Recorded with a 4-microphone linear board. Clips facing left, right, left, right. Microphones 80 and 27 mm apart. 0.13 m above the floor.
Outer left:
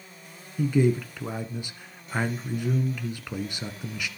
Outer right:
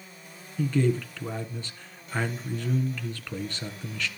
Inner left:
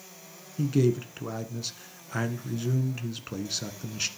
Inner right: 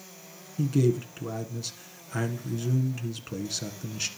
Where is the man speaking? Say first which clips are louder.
Outer left 2 dB, even; 10° left (ahead or behind), 1.7 m.